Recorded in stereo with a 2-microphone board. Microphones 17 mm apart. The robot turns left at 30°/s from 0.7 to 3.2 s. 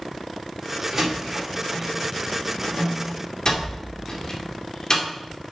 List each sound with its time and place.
0.9 s a door slam: 25° right (ahead or behind), 2 m; by 5.0 s 45° left (ahead or behind), 2 m